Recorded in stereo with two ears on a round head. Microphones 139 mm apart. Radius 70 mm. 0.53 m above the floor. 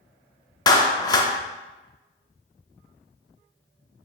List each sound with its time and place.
0.7 s a clap: 25° left (ahead or behind), 0.5 m